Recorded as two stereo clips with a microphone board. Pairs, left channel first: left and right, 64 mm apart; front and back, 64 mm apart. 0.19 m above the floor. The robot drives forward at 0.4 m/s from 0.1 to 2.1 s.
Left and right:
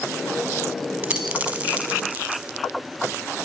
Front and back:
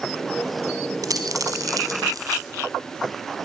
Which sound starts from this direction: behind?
A dropped coin, at 1.0 s.